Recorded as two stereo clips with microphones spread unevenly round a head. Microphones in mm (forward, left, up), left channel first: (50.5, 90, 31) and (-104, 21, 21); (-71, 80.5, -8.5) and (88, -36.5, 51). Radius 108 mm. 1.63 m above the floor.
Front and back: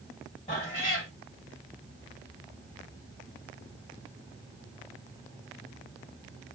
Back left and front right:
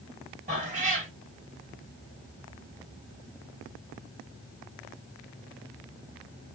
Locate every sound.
0.5 s a cat meowing: 30° right, 1.9 m